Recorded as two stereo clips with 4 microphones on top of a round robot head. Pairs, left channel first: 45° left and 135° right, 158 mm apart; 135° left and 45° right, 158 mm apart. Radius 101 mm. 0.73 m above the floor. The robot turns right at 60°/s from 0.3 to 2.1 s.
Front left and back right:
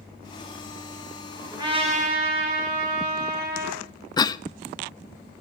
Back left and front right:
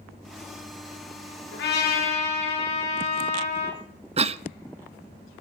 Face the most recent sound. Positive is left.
turn(degrees=-10)